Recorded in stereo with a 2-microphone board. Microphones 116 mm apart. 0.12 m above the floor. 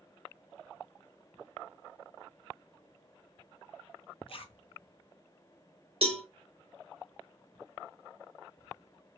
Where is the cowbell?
60° right (ahead or behind), 1.0 m.